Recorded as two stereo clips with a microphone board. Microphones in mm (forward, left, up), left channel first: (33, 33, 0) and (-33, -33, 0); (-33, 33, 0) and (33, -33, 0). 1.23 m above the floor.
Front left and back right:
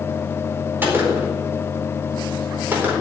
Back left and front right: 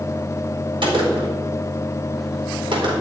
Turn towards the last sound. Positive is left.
turn(degrees=-65)